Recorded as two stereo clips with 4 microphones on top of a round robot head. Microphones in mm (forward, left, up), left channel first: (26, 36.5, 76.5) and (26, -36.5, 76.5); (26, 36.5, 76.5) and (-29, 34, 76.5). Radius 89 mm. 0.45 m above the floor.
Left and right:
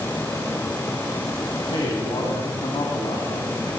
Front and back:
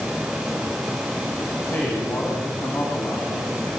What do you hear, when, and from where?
1.7 s a man speaking: 65° left, 5 m; by 3.7 s 60° left, 6 m